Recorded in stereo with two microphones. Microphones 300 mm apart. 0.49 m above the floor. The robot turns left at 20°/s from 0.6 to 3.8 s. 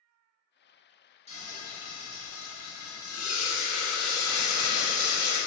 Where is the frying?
160° left, 0.8 m; by 5.4 s 110° left, 0.8 m.